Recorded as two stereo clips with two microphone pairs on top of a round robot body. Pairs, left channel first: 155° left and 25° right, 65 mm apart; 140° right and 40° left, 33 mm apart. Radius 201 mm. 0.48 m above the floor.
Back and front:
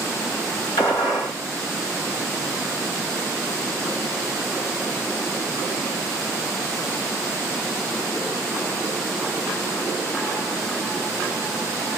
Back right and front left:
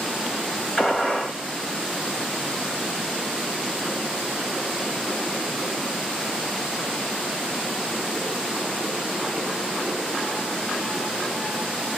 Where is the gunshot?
150° left, 2 m.